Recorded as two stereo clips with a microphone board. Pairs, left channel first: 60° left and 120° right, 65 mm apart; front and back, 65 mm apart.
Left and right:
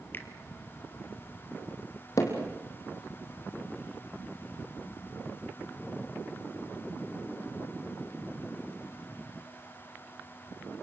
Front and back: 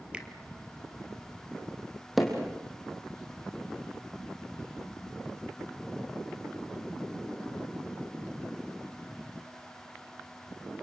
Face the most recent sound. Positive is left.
turn(degrees=95)